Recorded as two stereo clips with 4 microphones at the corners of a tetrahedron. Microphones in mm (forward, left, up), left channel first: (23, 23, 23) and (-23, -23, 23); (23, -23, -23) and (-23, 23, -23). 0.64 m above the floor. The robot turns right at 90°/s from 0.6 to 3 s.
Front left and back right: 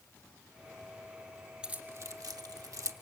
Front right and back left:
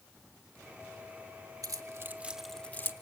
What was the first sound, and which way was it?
Keys jangling, 150° left.